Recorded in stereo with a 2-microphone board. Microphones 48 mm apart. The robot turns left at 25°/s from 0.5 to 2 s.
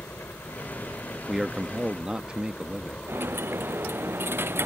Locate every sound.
0.0 s a helicopter: 55° left (ahead or behind); by 4.7 s 30° left (ahead or behind)
1.3 s a man speaking: 5° right (ahead or behind); by 3.0 s 20° right (ahead or behind)
3.1 s a dropped coin: 50° right (ahead or behind)